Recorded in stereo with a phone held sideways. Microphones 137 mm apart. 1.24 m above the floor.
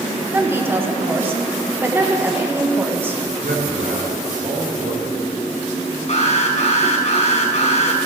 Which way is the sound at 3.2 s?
70° right (ahead or behind).